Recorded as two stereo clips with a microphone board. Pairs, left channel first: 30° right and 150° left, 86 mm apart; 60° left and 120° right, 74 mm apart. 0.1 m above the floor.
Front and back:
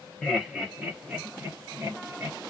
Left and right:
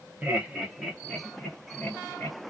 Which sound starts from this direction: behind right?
Laughter, at 0.2 s.